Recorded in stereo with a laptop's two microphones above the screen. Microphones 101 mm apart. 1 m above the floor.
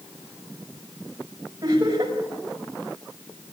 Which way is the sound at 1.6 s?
40° right (ahead or behind).